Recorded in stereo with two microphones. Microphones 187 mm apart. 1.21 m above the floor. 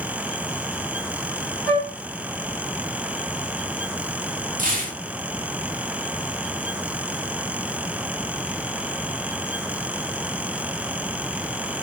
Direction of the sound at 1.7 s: 70° left (ahead or behind).